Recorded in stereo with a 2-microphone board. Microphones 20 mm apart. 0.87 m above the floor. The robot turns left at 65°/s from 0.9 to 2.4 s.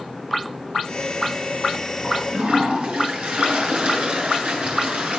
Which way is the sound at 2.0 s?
60° right (ahead or behind).